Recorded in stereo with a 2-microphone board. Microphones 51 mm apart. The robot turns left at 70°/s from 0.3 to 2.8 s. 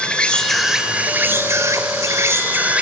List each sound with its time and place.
0.0 s an insect: 20° left, 2 m; by 2.8 s 155° right, 2 m